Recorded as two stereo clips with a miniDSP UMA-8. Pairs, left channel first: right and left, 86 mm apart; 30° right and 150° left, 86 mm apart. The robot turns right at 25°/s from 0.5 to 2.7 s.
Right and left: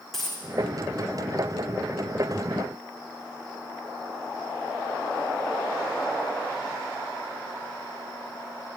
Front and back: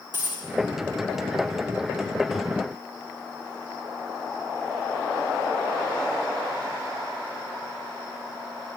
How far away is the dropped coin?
About 3 m.